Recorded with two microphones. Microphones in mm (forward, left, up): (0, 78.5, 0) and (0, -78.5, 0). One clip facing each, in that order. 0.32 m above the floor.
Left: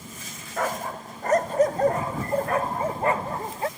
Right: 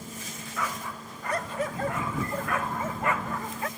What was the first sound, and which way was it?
A dog barking, 50° left (ahead or behind).